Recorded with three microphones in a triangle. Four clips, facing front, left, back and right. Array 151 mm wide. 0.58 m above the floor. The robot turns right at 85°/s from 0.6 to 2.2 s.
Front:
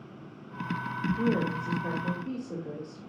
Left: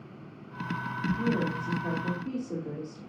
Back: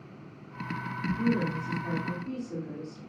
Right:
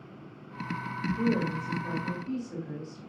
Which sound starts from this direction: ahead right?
A woman speaking, at 1.2 s.